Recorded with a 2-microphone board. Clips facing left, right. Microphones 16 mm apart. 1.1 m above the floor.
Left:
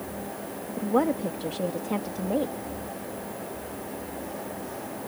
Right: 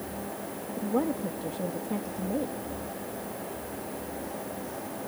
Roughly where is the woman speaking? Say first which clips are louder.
Left 4 dB; left.